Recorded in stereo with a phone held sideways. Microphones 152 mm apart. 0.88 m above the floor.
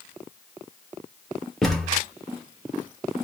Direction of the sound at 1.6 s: Centre (ahead or behind).